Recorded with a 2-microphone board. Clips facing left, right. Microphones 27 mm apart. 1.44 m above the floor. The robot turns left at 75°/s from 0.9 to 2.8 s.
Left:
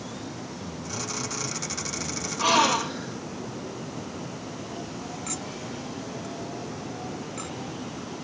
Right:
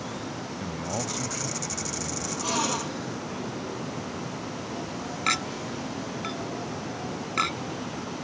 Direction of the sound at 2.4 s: 55° left.